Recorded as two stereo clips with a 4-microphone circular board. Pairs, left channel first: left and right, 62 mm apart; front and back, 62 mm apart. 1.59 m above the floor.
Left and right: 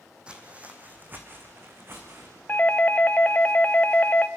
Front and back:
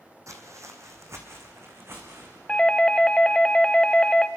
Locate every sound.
0.3 s footsteps: 160° right, 3 m; by 2.4 s 135° right, 5.5 m
2.5 s a doorbell: 60° left, 0.6 m